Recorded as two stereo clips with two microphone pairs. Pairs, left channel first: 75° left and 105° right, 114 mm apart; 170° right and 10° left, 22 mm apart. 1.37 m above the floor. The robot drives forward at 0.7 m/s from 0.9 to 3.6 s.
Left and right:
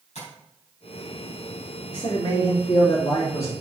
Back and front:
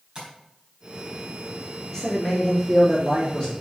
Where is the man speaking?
110° left, 3 m; by 3.5 s 125° left, 3.5 m.